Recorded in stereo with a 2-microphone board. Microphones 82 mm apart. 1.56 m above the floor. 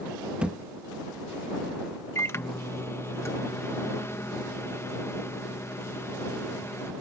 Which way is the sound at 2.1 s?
30° left (ahead or behind).